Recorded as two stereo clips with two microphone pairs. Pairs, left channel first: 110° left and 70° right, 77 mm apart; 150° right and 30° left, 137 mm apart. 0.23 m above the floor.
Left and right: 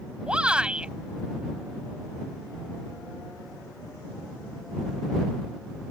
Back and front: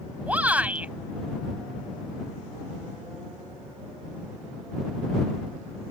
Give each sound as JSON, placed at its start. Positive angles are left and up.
{"t": 0.3, "sound": "a shout", "azimuth_deg": -25}